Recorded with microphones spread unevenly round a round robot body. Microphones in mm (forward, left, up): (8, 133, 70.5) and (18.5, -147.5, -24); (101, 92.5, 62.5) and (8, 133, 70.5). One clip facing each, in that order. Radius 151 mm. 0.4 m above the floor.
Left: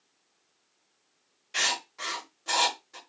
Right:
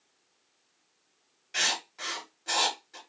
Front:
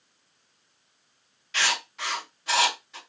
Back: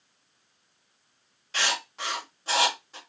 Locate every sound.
1.5 s writing: 170° right, 1.8 m